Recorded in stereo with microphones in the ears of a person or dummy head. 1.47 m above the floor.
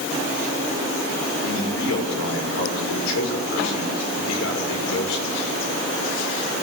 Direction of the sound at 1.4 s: 85° left.